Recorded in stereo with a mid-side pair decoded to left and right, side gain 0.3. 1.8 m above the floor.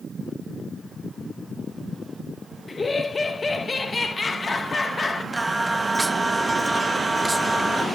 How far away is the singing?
About 1.2 m.